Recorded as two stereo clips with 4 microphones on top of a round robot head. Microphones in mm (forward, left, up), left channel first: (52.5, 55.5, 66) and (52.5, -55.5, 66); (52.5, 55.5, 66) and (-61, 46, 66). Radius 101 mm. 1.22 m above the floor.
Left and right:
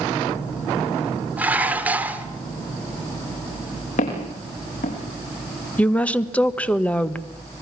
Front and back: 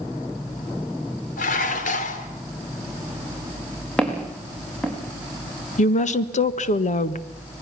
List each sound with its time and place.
1.4 s dishes clattering: 15° right, 2.5 m
4.0 s footsteps: 85° left, 6.5 m
5.8 s a woman speaking: 10° left, 1.5 m